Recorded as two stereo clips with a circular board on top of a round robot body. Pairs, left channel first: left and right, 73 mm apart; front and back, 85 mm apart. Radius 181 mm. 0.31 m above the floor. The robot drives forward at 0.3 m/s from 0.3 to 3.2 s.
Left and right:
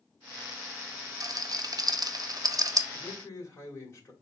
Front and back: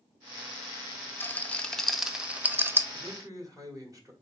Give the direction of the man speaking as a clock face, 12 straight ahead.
7 o'clock.